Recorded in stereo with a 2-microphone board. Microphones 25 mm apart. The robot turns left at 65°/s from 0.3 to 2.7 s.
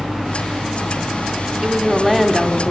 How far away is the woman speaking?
About 2.5 m.